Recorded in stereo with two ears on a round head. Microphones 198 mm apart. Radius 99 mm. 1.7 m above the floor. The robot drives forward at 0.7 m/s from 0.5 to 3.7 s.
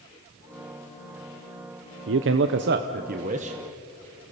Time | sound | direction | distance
2.1 | a man speaking | 55° right (ahead or behind) | 0.8 m